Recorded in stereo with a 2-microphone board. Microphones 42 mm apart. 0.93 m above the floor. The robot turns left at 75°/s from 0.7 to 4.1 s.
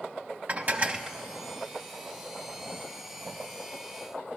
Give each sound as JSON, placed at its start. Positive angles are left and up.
{"t": 0.5, "sound": "dishes clattering", "azimuth_deg": -140, "distance_m": 0.6}